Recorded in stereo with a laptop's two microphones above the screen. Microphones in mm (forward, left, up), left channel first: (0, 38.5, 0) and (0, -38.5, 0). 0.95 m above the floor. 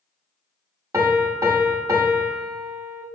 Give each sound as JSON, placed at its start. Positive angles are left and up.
{"t": 0.9, "sound": "a piano", "side_deg": -40, "distance_m": 0.7}